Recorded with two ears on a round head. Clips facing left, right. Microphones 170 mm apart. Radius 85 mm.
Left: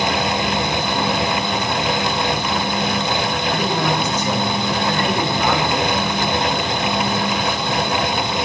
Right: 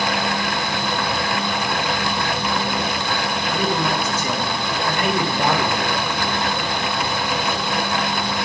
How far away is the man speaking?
About 3 m.